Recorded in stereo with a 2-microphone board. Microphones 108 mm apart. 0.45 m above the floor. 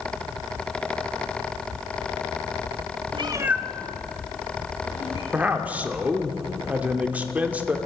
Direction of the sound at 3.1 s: 55° right (ahead or behind).